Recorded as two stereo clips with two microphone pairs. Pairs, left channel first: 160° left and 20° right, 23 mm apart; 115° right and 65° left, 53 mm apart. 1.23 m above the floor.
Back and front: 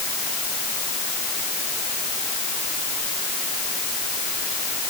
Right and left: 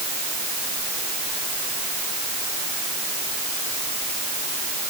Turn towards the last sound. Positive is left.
No sound to turn to.